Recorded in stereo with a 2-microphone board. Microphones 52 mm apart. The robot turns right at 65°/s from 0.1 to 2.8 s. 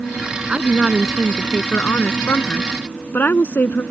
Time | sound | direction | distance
0.5 | a woman speaking | 35° right | ?